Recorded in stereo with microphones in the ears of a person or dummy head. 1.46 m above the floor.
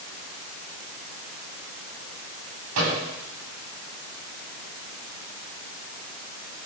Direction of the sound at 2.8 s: 85° right.